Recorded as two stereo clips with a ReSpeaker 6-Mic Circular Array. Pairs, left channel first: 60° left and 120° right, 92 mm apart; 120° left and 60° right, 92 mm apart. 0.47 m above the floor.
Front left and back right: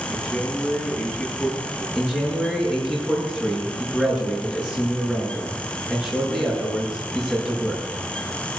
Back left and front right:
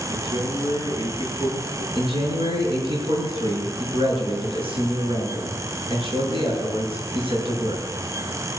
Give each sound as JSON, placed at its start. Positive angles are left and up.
{"t": 0.1, "sound": "a man speaking", "azimuth_deg": -35, "distance_m": 10.0}
{"t": 1.9, "sound": "a man speaking", "azimuth_deg": -40, "distance_m": 6.5}